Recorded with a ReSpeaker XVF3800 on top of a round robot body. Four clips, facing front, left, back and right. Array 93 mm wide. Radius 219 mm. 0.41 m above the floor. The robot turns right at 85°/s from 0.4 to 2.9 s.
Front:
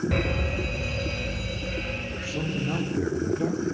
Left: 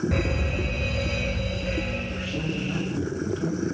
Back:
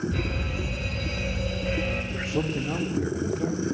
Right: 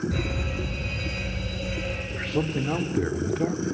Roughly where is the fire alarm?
Ahead left.